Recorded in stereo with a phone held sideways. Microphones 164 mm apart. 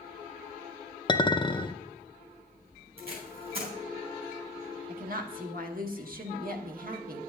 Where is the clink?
30° left (ahead or behind), 0.5 m.